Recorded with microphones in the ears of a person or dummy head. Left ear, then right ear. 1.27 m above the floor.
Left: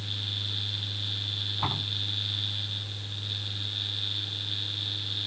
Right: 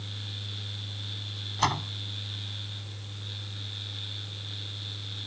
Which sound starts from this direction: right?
A door slam, at 1.6 s.